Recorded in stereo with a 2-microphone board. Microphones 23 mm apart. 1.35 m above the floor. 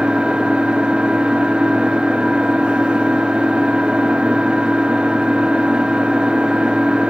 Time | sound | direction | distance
0.0 | an engine running | 55° right (ahead or behind) | 2.5 m